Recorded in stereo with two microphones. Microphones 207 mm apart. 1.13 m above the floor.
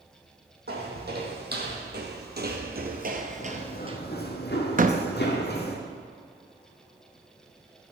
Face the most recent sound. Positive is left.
turn(degrees=-40)  # may be behind; listen again after turning